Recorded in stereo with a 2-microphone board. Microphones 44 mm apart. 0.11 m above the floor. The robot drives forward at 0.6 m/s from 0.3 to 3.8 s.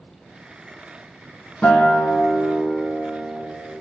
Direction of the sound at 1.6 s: 35° left (ahead or behind).